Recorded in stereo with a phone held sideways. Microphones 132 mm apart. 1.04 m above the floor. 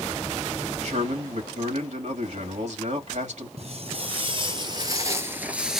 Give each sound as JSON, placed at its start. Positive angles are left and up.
{"t": 0.8, "sound": "a man speaking", "side_deg": -60, "distance_m": 2.0}
{"t": 3.6, "sound": "footsteps", "side_deg": -50, "distance_m": 1.6}